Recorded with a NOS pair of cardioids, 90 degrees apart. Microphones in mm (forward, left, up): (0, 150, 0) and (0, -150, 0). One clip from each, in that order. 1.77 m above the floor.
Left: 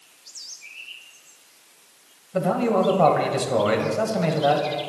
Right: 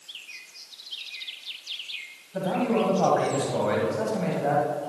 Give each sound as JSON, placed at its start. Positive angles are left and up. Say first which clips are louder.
{"t": 2.3, "sound": "a man speaking", "louder": "left 4 dB", "azimuth_deg": 45, "distance_m": 1.6}